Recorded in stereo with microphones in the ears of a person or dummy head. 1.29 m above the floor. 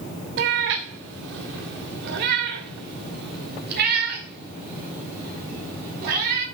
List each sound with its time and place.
0.4 s a cat meowing: 50° right (ahead or behind), 1.1 m; by 6.4 s 55° right (ahead or behind), 5.5 m